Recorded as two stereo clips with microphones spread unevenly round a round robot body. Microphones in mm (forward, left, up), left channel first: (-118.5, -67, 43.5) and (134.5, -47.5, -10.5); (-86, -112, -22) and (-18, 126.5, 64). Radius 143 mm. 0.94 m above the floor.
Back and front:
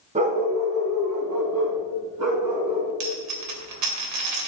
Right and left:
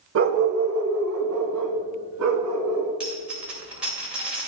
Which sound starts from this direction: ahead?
A dropped coin, at 3.0 s.